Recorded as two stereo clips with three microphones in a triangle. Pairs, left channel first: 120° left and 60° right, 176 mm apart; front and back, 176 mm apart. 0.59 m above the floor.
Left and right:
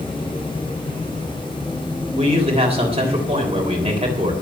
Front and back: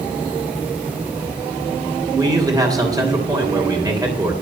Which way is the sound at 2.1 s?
110° right.